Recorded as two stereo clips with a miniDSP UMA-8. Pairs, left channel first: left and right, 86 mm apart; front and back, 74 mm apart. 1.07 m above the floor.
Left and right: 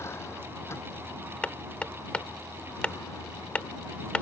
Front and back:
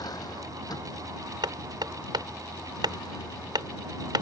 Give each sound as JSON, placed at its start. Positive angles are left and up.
{"t": 0.0, "sound": "a vehicle", "azimuth_deg": 30}
{"t": 1.4, "sound": "hammering", "azimuth_deg": 165}